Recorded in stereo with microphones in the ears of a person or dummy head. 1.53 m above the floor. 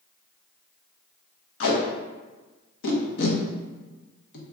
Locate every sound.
1.6 s tape being pulled: 70° left (ahead or behind), 0.8 m